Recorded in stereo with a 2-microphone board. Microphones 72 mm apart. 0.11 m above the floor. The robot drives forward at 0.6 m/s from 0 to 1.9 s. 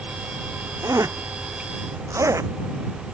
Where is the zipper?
45° right (ahead or behind).